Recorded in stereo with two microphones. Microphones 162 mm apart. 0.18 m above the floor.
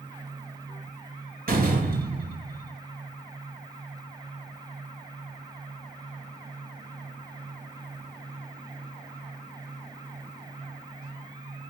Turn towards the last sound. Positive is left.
turn(degrees=-65)  # may be behind; listen again after turning